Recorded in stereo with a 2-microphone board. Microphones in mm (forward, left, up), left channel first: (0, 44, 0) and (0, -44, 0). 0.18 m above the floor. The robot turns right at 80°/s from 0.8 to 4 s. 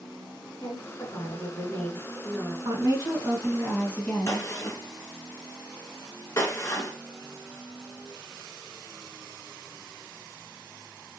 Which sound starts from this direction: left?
A gunshot, at 4.3 s.